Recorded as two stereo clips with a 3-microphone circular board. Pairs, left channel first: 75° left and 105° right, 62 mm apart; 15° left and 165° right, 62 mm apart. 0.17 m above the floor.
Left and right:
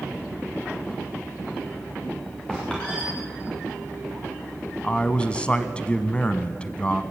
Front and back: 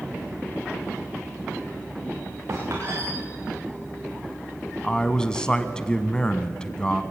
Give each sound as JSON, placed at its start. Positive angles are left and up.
{"t": 2.5, "sound": "a squeak", "azimuth_deg": 150, "distance_m": 7.5}
{"t": 4.8, "sound": "a man speaking", "azimuth_deg": 60, "distance_m": 1.0}